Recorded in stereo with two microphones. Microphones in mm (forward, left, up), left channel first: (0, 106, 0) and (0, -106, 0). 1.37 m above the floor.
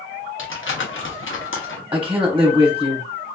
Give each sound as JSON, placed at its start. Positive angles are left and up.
{"t": 0.4, "sound": "crumpling", "side_deg": 70, "distance_m": 0.8}
{"t": 1.9, "sound": "a man speaking", "side_deg": -10, "distance_m": 0.6}